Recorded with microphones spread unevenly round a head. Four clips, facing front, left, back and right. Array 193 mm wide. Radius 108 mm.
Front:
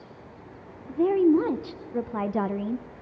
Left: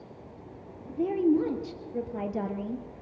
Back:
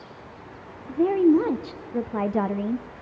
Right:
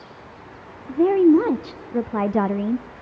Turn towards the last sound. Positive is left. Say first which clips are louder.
# right 10 dB, back 2 dB
turn(degrees=-70)